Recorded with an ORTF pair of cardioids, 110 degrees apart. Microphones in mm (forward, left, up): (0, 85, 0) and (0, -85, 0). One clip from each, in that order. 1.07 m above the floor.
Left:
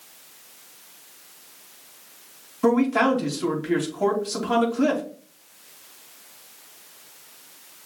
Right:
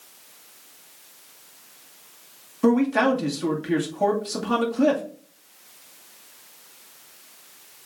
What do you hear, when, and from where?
2.6 s a man speaking: 10° right, 2.0 m